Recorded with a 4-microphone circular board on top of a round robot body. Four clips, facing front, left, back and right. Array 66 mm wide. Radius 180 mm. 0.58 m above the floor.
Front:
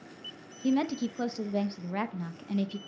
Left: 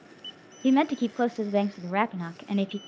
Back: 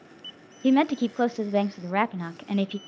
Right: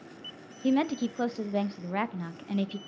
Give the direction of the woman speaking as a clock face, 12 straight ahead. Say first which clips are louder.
Left 4 dB, back 7 dB; 7 o'clock.